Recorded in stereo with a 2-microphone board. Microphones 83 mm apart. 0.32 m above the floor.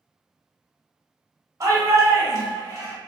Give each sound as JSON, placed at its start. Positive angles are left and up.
{"t": 1.6, "sound": "a shout", "side_deg": -40, "distance_m": 1.3}